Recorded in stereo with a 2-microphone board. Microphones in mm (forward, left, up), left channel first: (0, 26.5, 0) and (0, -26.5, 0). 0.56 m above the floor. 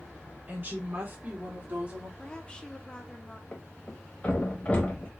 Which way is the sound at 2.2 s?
20° left (ahead or behind).